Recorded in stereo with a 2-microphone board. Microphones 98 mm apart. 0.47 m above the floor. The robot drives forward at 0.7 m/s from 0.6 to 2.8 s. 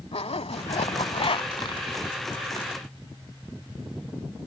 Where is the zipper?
80° left; by 1.8 s 50° left (ahead or behind).